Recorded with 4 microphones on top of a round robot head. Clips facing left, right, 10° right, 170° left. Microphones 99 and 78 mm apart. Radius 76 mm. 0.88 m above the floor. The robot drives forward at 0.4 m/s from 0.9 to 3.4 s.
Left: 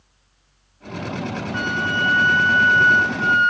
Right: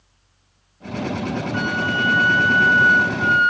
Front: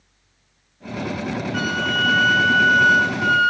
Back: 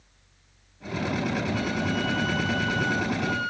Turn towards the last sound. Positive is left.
turn(degrees=-5)